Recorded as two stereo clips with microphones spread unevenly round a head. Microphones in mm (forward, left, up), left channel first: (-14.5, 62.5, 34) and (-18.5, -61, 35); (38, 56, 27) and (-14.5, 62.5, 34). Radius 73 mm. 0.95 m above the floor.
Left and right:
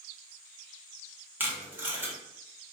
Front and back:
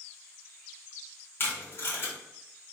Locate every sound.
1.4 s tape being pulled: 20° right, 0.7 m